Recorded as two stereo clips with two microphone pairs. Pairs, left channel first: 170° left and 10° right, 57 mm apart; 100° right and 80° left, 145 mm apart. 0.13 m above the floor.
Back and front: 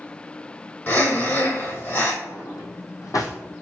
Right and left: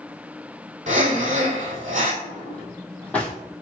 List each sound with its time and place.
0.9 s breathing: 120° left, 1.8 m
2.2 s a drawer: straight behind, 2.5 m